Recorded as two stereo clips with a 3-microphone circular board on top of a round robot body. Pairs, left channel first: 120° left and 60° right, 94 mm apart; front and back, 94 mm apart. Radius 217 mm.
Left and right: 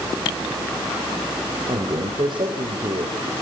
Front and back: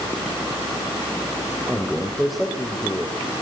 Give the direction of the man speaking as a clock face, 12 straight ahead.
3 o'clock.